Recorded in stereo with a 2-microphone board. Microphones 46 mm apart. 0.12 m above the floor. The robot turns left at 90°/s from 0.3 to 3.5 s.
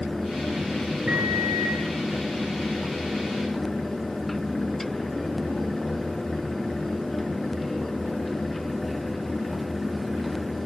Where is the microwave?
20° right, 9 m; by 1.8 s 90° right, 9 m.